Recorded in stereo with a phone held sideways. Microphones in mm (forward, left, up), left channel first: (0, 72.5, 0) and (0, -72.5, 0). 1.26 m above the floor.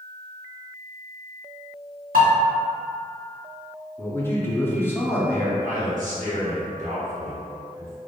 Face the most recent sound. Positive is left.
turn(degrees=-65)  # may be behind; listen again after turning